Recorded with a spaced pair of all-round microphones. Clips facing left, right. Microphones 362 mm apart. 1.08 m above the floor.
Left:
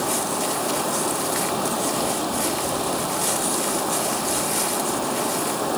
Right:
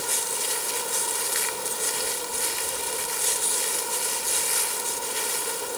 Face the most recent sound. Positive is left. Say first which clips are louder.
# left 10 dB
turn(degrees=85)